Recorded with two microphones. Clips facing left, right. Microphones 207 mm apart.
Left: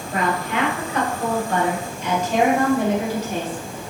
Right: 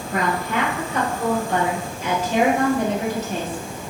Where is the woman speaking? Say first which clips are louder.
Even; 35° right (ahead or behind), 2.0 m; by 3.8 s 20° left (ahead or behind), 2.0 m.